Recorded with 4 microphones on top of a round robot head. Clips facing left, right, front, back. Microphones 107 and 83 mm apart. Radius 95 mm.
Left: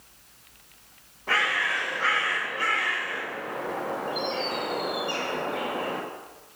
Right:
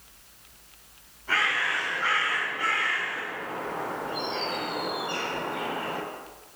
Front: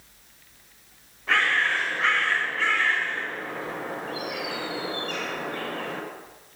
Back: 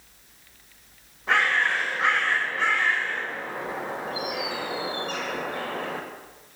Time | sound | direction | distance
1.3 | a bird | 105° left | 4.5 m